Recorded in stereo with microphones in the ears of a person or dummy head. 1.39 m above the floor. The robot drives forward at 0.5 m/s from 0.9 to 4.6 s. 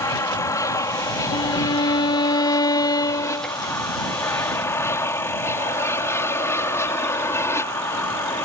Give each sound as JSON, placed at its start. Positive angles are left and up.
{"t": 0.0, "sound": "an aircraft", "side_deg": 15}
{"t": 1.3, "sound": "a violin", "side_deg": 30}